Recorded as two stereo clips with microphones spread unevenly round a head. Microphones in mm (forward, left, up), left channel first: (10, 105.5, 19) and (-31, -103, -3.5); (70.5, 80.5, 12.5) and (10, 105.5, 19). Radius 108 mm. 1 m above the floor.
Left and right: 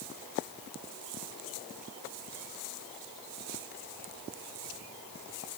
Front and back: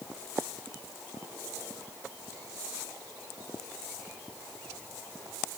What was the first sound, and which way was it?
Only background noise.